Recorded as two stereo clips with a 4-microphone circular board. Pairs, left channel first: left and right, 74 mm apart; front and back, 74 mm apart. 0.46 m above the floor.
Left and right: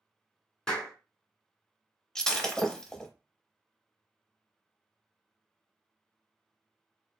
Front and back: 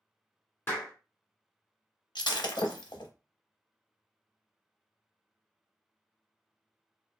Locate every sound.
0.7 s a clap: 20° left, 1.2 m
2.1 s breaking glass: 10° left, 0.6 m